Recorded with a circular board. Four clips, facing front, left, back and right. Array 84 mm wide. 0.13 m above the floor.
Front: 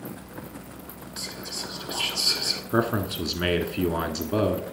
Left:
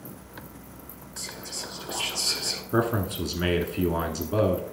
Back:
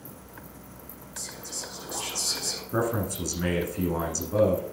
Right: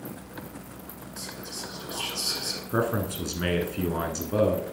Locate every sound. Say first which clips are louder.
1.2 s whispering: even, front 4 dB; straight ahead, 1.2 m
2.7 s a man speaking: left 2 dB, front 3 dB; 10° left, 1.1 m